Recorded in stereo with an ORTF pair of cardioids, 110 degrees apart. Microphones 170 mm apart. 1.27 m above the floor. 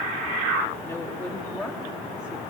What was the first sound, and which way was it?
A woman speaking, 15° left.